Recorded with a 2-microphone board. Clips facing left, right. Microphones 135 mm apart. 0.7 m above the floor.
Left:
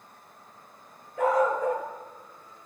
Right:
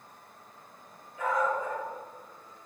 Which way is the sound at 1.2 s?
85° left.